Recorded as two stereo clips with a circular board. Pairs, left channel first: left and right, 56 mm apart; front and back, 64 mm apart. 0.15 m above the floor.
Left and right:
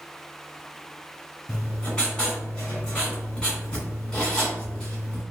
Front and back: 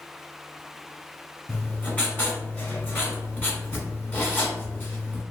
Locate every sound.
1.5 s writing: 30° left, 1.4 m